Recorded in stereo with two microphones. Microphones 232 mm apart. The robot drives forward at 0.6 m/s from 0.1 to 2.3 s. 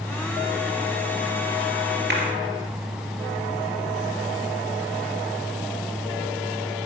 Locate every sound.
2.1 s a clap: 50° right (ahead or behind), 3 m